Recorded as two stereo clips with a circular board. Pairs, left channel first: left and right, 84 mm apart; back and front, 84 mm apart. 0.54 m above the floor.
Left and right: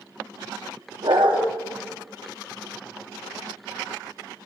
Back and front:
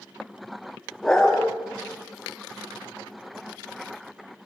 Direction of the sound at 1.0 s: 95° right.